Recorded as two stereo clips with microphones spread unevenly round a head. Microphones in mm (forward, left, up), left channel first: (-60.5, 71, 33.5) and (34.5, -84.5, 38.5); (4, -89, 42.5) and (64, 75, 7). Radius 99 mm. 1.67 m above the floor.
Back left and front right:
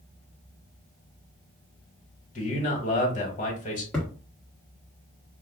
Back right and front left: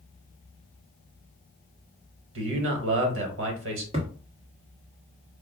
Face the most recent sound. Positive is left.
turn(degrees=35)